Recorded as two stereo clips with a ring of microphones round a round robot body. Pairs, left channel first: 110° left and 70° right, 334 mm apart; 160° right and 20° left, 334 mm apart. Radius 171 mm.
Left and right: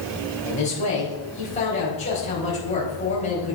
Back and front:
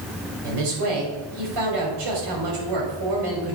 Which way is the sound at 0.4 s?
40° left.